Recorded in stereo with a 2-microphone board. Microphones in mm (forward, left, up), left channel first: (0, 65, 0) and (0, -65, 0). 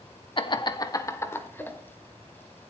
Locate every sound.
0.4 s laughter: 45° left (ahead or behind), 0.8 m; by 1.8 s 15° left (ahead or behind), 1.7 m